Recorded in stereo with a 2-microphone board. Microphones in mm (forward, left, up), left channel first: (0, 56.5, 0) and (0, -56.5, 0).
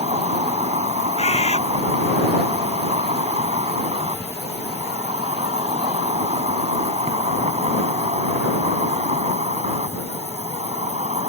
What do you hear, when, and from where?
0.0 s an insect: 70° right (ahead or behind)
1.2 s a bird: 70° left (ahead or behind)